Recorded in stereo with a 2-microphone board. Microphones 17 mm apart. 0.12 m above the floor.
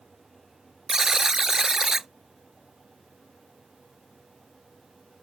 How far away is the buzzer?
About 0.6 m.